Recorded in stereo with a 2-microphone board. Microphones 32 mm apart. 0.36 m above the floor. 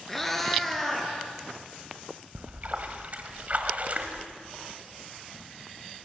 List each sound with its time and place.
0.1 s a cat meowing: 10° left (ahead or behind), 2.5 m; by 1.1 s 5° left (ahead or behind), 4 m
2.4 s a splash: 45° right (ahead or behind), 1.8 m